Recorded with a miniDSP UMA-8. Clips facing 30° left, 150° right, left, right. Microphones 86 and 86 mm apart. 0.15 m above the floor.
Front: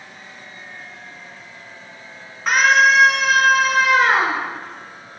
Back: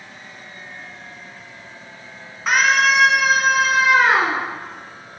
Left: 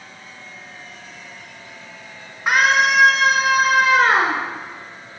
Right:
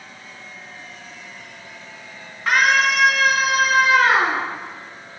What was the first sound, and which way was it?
A scream, 125° left.